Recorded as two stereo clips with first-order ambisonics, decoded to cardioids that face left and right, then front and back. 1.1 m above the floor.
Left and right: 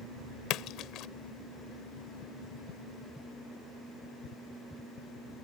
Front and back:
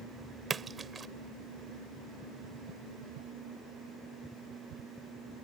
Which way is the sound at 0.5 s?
115° left.